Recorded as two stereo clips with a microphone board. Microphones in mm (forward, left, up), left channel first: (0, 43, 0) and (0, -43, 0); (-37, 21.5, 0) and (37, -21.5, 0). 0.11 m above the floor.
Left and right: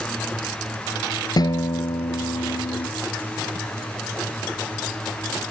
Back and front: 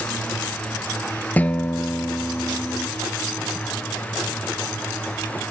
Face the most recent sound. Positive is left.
turn(degrees=85)